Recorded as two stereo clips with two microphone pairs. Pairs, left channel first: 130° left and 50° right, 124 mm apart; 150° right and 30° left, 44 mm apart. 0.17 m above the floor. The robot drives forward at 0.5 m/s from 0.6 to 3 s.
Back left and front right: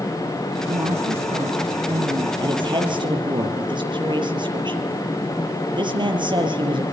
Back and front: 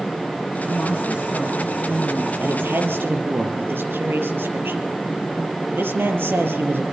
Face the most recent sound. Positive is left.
turn(degrees=0)